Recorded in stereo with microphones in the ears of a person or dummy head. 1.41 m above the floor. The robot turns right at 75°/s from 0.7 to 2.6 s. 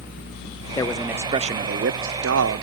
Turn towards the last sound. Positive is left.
turn(degrees=-60)